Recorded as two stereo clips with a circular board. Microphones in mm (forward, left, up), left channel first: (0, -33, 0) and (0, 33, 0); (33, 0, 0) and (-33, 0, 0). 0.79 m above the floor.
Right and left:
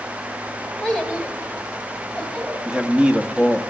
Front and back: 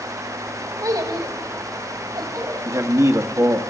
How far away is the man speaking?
About 1.3 m.